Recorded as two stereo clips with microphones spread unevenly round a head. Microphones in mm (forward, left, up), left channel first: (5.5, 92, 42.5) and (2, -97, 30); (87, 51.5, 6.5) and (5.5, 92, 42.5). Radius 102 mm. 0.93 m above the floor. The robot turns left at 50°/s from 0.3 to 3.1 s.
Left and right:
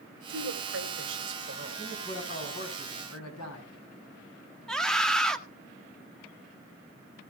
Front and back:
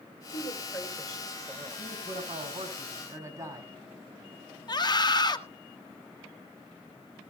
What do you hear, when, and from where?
0.3 s a woman speaking: 70° right, 2.5 m; by 1.9 s 150° right, 2.5 m
1.8 s a man speaking: 160° left, 7 m; by 3.7 s 95° left, 7 m
4.7 s a scream: straight ahead, 1.6 m